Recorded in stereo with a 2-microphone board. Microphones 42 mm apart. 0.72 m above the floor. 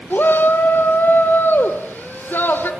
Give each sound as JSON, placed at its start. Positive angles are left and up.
{"t": 0.1, "sound": "a shout", "side_deg": 55, "distance_m": 2.0}